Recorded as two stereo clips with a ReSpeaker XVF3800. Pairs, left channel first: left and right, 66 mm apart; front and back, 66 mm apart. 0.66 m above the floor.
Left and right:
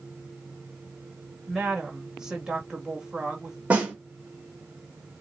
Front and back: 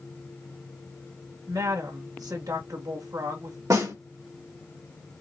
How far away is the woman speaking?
About 2 m.